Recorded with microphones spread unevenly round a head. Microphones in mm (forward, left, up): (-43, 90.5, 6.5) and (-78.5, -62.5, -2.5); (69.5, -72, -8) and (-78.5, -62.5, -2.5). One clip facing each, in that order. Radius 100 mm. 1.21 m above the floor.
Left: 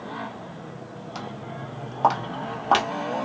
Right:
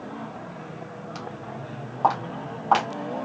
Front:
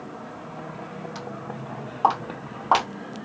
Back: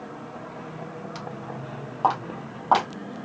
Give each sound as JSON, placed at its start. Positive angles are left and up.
{"t": 1.1, "sound": "footsteps", "azimuth_deg": 165, "distance_m": 1.3}